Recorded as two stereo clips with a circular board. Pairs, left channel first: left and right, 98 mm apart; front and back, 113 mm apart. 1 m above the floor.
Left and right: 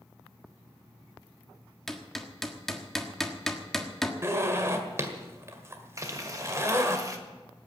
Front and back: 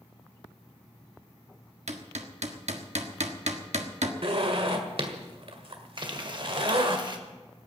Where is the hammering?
175° left, 1.3 m.